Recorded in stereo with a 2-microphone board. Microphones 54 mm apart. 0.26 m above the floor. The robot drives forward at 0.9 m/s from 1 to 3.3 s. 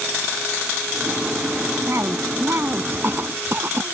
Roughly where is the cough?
Right.